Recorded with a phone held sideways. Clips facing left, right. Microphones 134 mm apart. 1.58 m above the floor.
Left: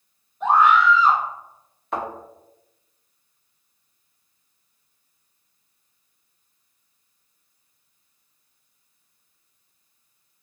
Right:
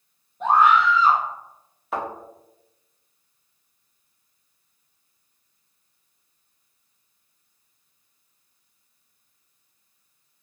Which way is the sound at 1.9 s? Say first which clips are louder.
Even; 5° right (ahead or behind).